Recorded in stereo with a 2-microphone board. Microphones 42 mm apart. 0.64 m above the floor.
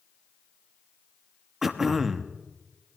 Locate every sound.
1.6 s throat clearing: 5° right (ahead or behind), 0.8 m